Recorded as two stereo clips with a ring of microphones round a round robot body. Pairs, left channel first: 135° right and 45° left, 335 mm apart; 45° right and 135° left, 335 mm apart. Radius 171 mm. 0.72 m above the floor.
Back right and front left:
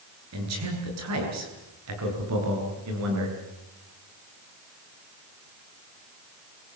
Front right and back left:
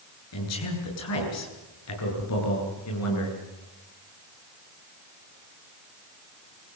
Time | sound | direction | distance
0.3 | a man speaking | straight ahead | 9.5 m